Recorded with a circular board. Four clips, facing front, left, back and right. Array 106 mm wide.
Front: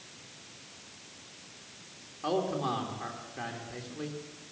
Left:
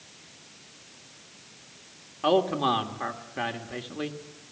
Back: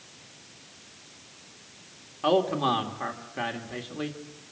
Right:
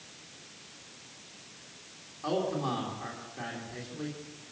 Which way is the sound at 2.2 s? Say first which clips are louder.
Left 8 dB, back 7 dB; 125° left.